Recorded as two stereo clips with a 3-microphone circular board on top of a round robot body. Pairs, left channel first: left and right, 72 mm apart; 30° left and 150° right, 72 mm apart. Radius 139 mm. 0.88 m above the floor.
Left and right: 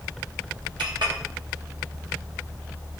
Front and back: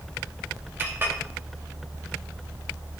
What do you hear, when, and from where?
0.8 s a clink: 90° right, 3 m